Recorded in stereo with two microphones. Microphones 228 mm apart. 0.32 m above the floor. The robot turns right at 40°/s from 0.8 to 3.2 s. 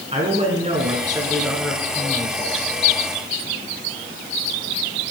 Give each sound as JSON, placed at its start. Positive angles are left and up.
{"t": 0.1, "sound": "a man speaking", "azimuth_deg": -30, "distance_m": 3.0}